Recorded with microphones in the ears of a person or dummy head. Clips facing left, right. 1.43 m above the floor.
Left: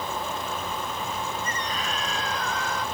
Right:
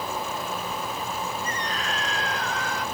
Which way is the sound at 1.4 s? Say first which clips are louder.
Right 1 dB; 80° left.